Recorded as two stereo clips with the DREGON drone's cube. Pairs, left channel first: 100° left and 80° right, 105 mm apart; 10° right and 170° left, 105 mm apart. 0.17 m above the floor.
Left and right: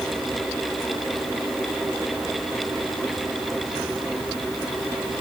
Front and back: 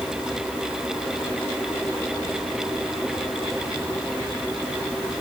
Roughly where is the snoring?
I don't hear snoring.